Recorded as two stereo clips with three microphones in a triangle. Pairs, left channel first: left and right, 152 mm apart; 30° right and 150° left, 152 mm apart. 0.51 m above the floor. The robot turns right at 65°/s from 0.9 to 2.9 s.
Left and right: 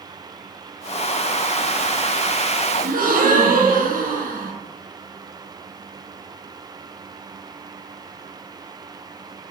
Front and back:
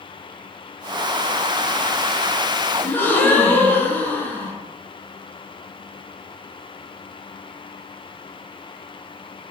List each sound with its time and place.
2.8 s a gasp: 115° right, 0.6 m; by 4.5 s 110° right, 0.6 m